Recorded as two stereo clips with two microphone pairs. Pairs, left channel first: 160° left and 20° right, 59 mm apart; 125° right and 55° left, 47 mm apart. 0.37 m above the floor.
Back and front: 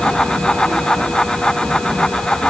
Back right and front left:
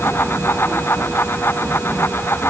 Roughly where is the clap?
No clap in this recording.